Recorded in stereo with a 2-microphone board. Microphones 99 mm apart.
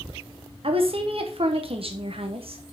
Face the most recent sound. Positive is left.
turn(degrees=-60)  # may be behind; listen again after turning